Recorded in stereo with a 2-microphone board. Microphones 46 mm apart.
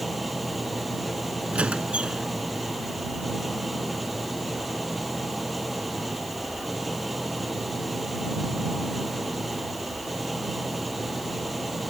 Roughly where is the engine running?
Centre.